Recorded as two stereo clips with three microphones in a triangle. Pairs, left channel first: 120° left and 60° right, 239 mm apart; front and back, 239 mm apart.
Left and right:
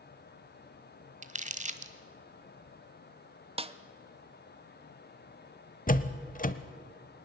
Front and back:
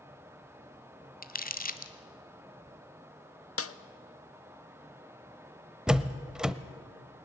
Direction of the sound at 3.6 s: Straight ahead.